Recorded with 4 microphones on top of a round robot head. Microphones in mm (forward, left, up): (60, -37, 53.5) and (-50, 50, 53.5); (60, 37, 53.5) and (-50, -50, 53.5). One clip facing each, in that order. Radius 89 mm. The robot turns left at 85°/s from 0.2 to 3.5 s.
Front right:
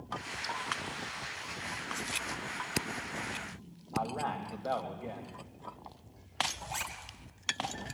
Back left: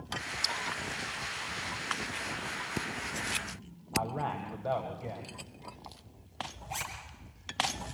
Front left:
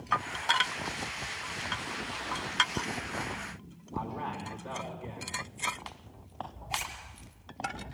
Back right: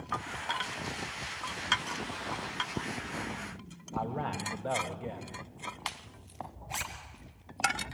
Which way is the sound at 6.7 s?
130° right.